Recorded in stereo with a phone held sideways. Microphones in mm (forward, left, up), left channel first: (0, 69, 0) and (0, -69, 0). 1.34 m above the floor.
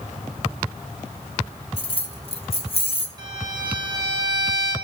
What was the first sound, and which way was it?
Keys jangling, 45° left (ahead or behind).